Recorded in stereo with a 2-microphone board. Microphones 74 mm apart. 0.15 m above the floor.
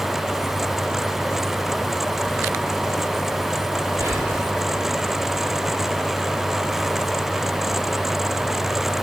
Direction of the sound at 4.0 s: 40° right (ahead or behind).